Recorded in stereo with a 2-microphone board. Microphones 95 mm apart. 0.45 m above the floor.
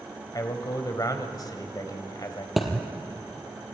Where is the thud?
Centre (ahead or behind), 3 m.